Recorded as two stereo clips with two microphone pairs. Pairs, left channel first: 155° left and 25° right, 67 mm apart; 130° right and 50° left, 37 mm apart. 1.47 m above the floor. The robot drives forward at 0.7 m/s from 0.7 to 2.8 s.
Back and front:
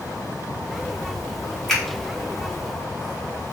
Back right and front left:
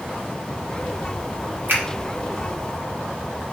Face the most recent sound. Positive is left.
turn(degrees=100)